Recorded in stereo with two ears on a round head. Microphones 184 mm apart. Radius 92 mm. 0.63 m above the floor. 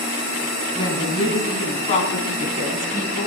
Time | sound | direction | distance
0.8 | a woman speaking | 25° left (ahead or behind) | 5 m